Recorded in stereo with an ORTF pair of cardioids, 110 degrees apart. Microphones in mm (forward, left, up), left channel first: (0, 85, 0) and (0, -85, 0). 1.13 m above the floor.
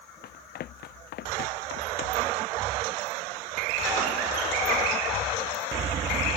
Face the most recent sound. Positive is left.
turn(degrees=75)